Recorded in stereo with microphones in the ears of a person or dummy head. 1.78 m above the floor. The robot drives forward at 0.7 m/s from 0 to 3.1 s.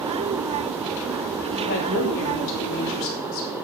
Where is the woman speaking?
65° left (ahead or behind), 5 m; by 3.5 s 80° left, 4.5 m.